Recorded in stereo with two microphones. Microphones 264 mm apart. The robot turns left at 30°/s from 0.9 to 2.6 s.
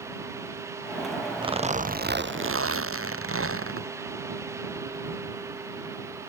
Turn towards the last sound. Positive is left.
turn(degrees=-55)